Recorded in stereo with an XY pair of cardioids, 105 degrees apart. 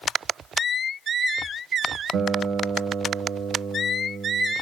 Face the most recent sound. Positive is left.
turn(degrees=-60)